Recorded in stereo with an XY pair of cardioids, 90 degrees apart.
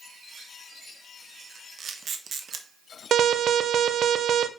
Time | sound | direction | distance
1.8 | a camera shutter | 55° right | 1.2 m
3.1 | an alarm | 70° right | 0.7 m